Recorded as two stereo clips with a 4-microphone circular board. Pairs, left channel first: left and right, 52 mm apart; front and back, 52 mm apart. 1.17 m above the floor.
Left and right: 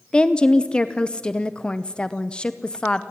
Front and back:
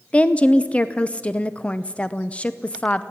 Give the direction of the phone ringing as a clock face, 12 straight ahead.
No phone ringing in this recording.